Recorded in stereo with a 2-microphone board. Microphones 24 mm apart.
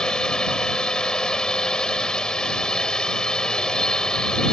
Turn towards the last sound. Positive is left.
turn(degrees=30)  # may be behind; listen again after turning